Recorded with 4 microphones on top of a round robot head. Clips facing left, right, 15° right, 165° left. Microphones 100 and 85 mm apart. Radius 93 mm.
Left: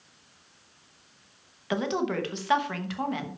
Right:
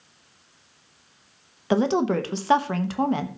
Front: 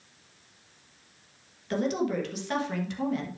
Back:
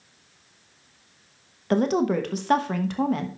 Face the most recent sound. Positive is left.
turn(degrees=-145)